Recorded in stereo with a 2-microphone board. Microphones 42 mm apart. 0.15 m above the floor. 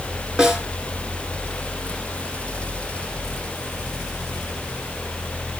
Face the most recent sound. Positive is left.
turn(degrees=-15)  # may be behind; listen again after turning